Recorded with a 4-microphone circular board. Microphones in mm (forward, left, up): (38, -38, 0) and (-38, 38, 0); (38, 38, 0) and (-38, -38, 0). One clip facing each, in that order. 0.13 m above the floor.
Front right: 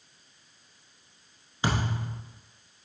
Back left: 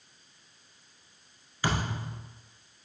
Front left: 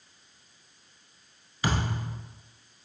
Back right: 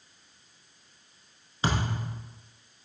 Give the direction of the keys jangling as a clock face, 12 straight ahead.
I don't hear keys jangling.